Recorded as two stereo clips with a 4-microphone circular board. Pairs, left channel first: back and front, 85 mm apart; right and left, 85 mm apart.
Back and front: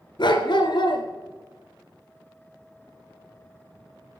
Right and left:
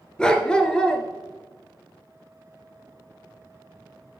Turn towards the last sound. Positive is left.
turn(degrees=-170)